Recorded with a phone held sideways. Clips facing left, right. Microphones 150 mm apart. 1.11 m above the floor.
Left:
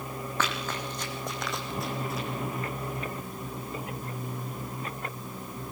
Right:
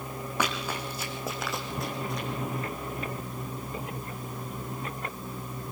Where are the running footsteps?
10° right (ahead or behind), 4.5 m; by 2.3 s 5° left (ahead or behind), 4 m.